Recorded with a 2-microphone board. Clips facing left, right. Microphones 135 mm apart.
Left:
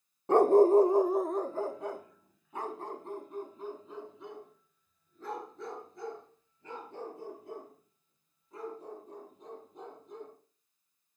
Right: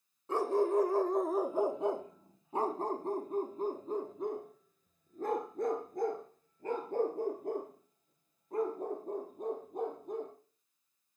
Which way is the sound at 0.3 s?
60° left (ahead or behind).